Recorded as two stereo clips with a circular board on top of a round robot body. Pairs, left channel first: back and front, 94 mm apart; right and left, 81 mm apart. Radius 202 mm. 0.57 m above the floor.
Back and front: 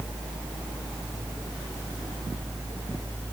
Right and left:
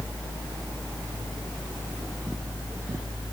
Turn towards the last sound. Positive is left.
No sound to turn to.